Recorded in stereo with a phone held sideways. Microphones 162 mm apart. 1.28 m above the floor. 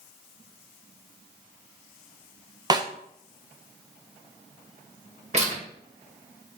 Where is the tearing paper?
45° right (ahead or behind), 2 m.